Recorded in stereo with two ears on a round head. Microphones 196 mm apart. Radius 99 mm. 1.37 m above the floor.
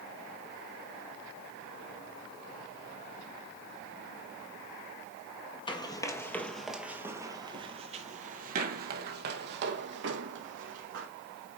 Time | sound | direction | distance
5.7 | running footsteps | 20° left (ahead or behind) | 1.5 m